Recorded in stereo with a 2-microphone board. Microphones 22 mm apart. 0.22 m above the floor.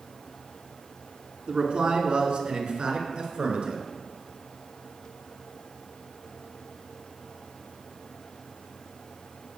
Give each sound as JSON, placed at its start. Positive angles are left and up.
{"t": 1.5, "sound": "a man speaking", "side_deg": -60, "distance_m": 2.5}